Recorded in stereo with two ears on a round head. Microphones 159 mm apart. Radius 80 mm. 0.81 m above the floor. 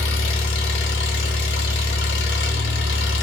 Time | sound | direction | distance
0.0 | an engine running | 70° left (ahead or behind) | 1.0 m